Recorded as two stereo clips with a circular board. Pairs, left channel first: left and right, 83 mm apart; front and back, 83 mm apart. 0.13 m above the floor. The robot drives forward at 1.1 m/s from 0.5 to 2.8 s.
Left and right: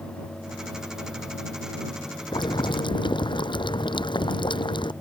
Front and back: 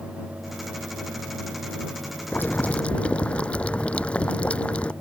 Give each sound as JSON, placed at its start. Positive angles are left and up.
{"t": 2.3, "sound": "boiling", "azimuth_deg": 65}